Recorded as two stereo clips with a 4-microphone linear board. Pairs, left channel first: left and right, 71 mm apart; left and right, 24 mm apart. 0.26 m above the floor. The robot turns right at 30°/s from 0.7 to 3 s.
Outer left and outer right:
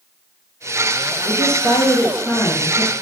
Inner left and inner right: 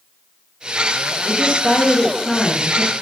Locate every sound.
1.2 s a woman speaking: 60° left, 3.5 m; by 2.9 s 110° left, 3.5 m